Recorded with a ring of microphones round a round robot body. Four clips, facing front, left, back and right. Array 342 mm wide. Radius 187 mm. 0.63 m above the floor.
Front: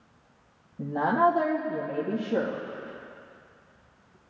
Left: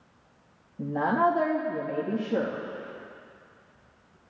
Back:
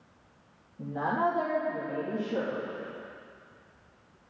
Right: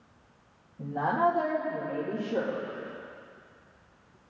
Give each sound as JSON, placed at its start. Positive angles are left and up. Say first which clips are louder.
{"t": 0.8, "sound": "a woman speaking", "louder": "left 2 dB, front 6 dB", "azimuth_deg": 50, "distance_m": 1.2}